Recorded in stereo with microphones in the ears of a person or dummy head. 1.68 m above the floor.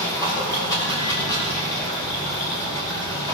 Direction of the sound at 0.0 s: 20° left (ahead or behind).